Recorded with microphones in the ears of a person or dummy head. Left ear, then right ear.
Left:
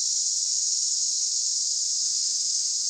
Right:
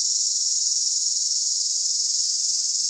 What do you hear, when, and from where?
0.0 s an insect: 80° right, 1.5 m